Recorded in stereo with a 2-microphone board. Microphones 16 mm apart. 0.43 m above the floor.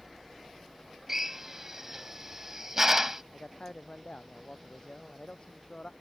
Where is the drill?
25° right (ahead or behind).